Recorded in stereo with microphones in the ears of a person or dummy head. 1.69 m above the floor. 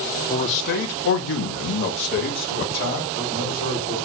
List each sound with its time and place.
0.3 s a man speaking: 30° left (ahead or behind), 0.5 m; by 4.0 s 45° left (ahead or behind), 2 m